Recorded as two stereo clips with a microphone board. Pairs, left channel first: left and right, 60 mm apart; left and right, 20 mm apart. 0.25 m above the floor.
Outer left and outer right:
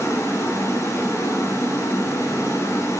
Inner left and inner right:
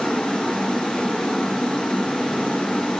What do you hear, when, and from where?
0.0 s running water: 55° left (ahead or behind), 1.8 m